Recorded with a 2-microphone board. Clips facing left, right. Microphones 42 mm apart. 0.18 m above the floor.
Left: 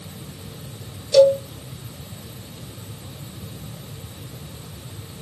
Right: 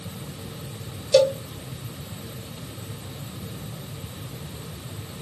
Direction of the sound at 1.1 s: 25° right (ahead or behind).